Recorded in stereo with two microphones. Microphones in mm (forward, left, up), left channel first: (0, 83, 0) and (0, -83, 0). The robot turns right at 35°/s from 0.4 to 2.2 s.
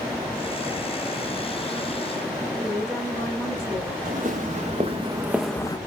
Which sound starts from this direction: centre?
A woman speaking, at 2.6 s.